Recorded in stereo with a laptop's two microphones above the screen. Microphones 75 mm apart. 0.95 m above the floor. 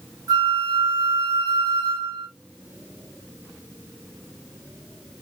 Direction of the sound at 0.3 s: 80° right.